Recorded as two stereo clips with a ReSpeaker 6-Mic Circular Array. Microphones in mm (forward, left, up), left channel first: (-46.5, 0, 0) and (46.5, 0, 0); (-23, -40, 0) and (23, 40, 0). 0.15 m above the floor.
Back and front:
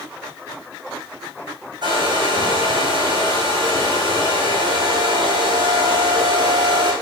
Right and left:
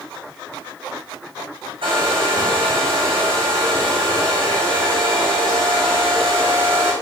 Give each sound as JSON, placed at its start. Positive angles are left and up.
{"t": 1.8, "sound": "a hair dryer", "azimuth_deg": 35, "distance_m": 4.0}